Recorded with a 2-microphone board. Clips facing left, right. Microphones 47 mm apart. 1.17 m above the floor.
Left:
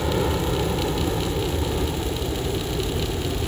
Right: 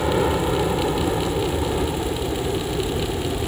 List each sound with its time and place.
0.0 s a helicopter: 20° right (ahead or behind); by 3.5 s 15° right (ahead or behind)